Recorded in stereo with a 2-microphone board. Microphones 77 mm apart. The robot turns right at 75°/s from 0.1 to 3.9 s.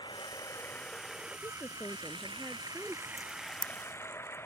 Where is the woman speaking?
85° left; by 3.1 s 155° right.